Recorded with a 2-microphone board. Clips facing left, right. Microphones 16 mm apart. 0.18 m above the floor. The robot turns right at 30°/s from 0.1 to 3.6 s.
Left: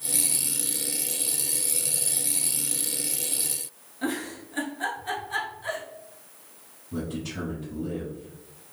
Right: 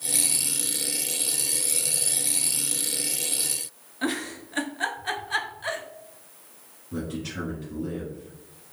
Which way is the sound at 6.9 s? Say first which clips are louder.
Even; 35° right (ahead or behind).